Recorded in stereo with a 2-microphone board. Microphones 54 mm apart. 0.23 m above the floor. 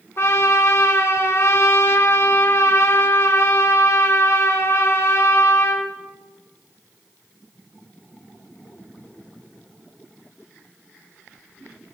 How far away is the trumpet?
About 2 m.